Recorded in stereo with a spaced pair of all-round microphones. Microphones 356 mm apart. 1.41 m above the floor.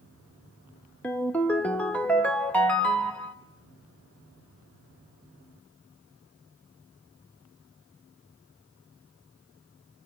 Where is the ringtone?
5° left (ahead or behind), 1.3 m.